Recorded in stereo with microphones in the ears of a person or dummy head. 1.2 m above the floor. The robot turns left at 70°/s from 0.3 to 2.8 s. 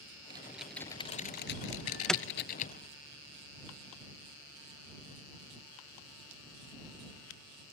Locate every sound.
0.3 s typing on a keyboard: 25° right (ahead or behind); by 2.7 s 35° left (ahead or behind)
1.7 s an alarm: 25° right (ahead or behind); by 2.2 s 10° left (ahead or behind)